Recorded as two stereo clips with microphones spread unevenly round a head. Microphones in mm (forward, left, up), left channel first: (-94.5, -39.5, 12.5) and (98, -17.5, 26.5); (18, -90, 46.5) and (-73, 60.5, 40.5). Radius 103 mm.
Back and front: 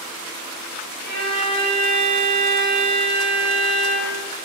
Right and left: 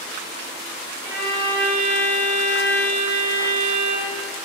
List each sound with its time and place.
1.0 s a violin: 50° left, 3.5 m